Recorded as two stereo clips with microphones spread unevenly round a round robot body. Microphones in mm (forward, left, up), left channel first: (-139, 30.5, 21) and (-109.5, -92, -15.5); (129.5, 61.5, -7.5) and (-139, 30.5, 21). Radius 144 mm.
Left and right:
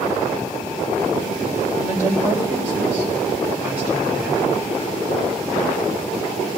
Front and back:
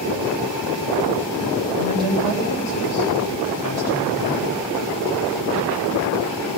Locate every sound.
1.8 s a woman speaking: 65° right, 4 m; by 4.5 s 35° right, 5.5 m